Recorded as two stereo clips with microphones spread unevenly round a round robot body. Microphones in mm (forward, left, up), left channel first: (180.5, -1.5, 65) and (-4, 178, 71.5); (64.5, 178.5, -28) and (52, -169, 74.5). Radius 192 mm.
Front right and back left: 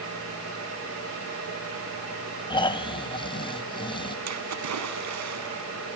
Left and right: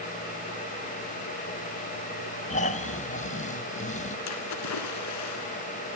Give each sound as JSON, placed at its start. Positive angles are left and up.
{"t": 2.5, "sound": "snoring", "azimuth_deg": 25, "distance_m": 1.8}
{"t": 4.3, "sound": "a splash", "azimuth_deg": 130, "distance_m": 2.5}